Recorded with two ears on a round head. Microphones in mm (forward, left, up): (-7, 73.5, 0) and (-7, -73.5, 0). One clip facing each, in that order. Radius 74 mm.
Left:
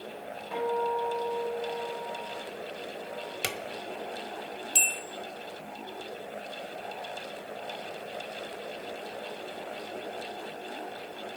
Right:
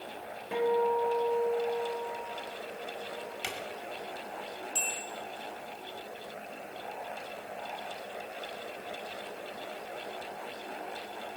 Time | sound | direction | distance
0.5 | a guitar | 25° right (ahead or behind) | 3.5 m
3.4 | a drawer | 70° left (ahead or behind) | 1.5 m
4.8 | a bell | 75° left (ahead or behind) | 1.9 m